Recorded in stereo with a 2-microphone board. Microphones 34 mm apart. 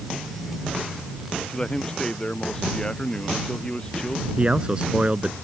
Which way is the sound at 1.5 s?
20° left (ahead or behind).